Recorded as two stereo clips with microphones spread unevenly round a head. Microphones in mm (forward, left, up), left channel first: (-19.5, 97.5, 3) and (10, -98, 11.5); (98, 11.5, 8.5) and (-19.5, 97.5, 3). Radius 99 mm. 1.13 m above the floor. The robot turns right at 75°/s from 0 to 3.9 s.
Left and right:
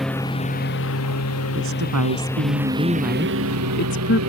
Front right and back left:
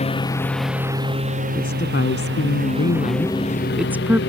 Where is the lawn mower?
5° left; by 4.3 s 70° right.